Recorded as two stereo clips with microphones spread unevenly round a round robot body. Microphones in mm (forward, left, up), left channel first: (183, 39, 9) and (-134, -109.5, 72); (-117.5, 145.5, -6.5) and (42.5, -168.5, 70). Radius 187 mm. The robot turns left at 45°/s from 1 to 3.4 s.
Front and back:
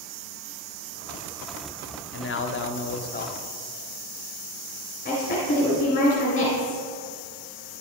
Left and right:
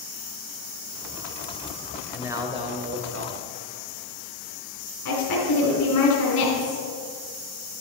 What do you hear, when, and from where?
2.1 s a man speaking: 40° left, 1.1 m; by 3.5 s 20° right, 1.1 m
5.0 s a woman speaking: 85° left, 3 m